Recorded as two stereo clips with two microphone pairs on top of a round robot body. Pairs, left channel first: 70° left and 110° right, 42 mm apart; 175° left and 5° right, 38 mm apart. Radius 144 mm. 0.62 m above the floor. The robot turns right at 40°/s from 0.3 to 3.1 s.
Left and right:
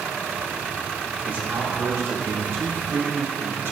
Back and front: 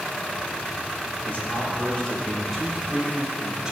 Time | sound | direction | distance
1.2 | a man speaking | 155° right | 3 m